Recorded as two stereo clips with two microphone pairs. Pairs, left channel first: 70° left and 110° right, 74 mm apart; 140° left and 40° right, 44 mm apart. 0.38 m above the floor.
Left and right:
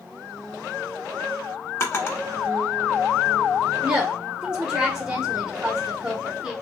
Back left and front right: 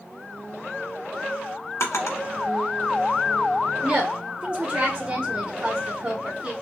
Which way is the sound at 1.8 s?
130° left.